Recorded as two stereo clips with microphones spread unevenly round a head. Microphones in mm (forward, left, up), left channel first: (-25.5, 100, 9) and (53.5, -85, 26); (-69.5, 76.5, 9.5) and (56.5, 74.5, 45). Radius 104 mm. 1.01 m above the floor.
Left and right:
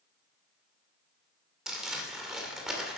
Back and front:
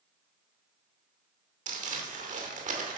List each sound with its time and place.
1.7 s crumpling: 20° left, 2.5 m